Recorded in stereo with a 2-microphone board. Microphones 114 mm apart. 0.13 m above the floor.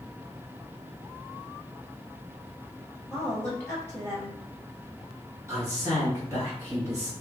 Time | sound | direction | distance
3.1 | a woman speaking | 20° left (ahead or behind) | 2.0 m
5.5 | a man speaking | 25° right (ahead or behind) | 2.0 m